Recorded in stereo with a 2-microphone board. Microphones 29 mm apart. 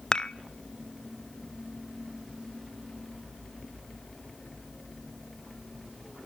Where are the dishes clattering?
25° left (ahead or behind), 0.8 m.